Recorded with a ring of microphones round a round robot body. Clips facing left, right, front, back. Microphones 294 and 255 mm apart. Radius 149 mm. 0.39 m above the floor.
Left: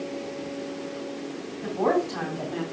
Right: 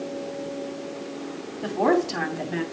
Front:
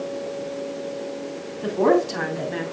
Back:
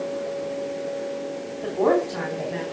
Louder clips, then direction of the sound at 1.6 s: Right 3 dB, front 2 dB; 60° right.